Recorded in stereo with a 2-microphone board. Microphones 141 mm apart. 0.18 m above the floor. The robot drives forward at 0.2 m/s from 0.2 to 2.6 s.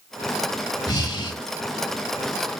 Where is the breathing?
25° left (ahead or behind), 0.7 m; by 1.4 s 30° left (ahead or behind), 0.6 m.